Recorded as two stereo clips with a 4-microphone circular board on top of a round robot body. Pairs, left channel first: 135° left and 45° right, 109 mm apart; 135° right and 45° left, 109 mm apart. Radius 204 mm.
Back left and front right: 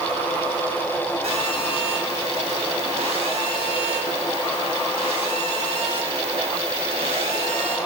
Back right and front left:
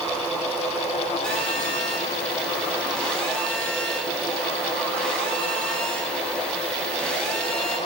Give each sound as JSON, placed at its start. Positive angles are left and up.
{"t": 1.2, "sound": "a phone buzzing", "azimuth_deg": -50, "distance_m": 7.0}